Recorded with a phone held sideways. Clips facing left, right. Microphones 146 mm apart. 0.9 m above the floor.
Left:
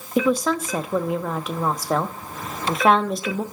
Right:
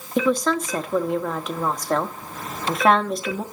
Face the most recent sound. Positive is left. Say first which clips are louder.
# even
turn(degrees=5)  # may be behind; listen again after turning